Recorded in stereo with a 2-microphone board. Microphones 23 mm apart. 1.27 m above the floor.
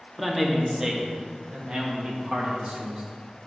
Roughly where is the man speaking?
Centre.